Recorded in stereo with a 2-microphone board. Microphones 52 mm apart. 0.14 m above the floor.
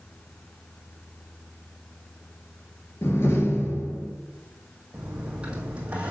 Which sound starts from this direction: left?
A door slam, at 3.0 s.